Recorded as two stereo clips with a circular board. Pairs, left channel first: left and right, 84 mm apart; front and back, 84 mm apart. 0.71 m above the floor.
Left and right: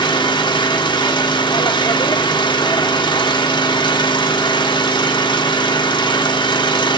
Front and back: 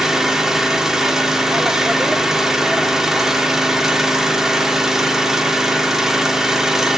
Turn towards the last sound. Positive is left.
turn(degrees=95)